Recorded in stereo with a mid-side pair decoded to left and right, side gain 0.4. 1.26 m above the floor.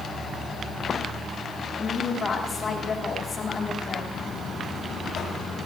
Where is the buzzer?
65° left, 7 m.